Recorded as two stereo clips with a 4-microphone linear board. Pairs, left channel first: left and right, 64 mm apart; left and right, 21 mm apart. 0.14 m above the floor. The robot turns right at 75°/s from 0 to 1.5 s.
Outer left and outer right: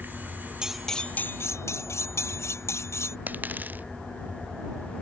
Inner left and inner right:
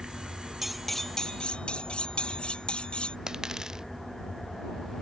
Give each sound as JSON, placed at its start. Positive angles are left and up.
{"t": 0.6, "sound": "cutlery clinking", "azimuth_deg": -15}
{"t": 3.3, "sound": "a dropped coin", "side_deg": -30}